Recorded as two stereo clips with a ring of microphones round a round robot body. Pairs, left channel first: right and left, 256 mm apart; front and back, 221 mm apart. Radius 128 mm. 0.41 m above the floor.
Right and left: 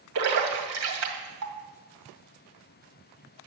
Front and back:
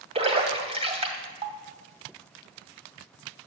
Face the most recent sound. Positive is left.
turn(degrees=120)